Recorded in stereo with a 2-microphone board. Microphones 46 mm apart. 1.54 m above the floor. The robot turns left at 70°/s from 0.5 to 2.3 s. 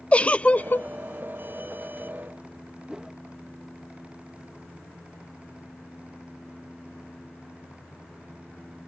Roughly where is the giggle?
Left.